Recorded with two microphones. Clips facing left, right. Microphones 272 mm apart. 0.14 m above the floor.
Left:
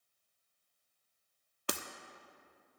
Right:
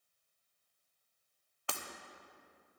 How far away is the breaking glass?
About 0.6 m.